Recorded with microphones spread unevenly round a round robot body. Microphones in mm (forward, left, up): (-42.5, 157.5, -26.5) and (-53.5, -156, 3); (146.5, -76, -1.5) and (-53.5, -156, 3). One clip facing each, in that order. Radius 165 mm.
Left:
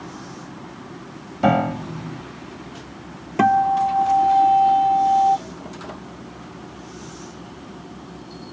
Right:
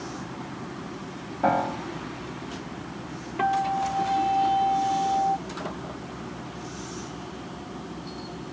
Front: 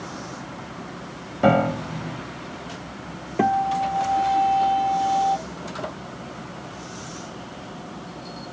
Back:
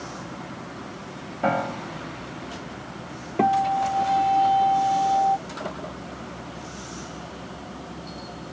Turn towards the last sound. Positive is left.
turn(degrees=110)